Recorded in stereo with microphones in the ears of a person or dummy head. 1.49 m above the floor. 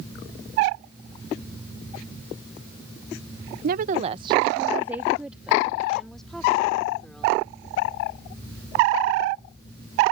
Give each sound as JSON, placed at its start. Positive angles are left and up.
{"t": 3.6, "sound": "a woman speaking", "side_deg": -60}